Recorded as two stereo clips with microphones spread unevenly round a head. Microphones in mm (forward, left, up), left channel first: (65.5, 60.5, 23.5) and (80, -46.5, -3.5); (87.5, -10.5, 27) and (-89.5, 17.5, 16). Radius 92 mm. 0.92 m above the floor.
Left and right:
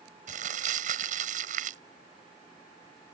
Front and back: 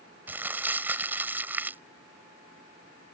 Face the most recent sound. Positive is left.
turn(degrees=-110)